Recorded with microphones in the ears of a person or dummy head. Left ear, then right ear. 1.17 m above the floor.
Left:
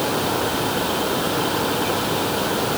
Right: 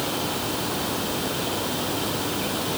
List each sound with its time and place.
Only background noise.